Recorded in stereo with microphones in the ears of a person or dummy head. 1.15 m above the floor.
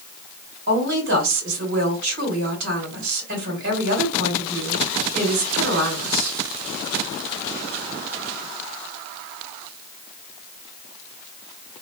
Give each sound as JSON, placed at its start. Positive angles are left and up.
{"t": 0.7, "sound": "a woman speaking", "side_deg": -60, "distance_m": 2.0}